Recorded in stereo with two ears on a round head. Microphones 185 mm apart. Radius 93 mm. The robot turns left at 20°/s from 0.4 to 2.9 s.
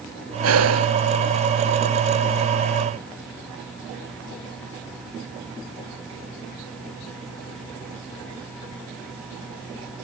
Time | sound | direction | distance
0.4 | breathing | 85° right | ?